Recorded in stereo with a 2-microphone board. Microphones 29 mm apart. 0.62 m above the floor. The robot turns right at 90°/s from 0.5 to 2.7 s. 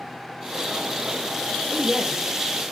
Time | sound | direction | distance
1.7 | a woman speaking | 140° left | 1.1 m